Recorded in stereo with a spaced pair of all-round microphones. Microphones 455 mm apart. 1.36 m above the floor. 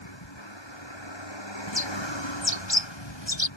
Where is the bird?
75° left (ahead or behind).